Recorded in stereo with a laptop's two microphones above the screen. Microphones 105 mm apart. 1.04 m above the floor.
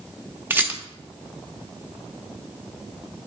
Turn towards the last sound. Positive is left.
turn(degrees=-20)  # may be behind; listen again after turning